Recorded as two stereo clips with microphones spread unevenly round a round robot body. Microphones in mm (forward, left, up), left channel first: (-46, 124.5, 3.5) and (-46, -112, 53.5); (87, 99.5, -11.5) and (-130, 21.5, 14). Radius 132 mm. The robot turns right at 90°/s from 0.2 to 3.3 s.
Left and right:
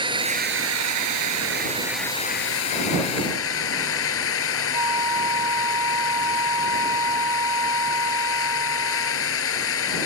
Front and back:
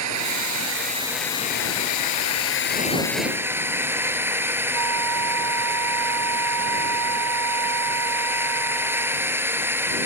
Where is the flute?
165° right.